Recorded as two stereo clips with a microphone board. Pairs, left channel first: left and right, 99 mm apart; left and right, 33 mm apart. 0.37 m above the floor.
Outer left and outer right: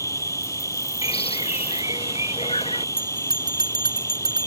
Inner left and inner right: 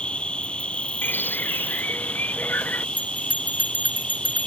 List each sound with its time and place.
0.0 s an insect: 30° left (ahead or behind)
1.0 s a bird: 75° left (ahead or behind)
3.0 s a bell: 45° right (ahead or behind)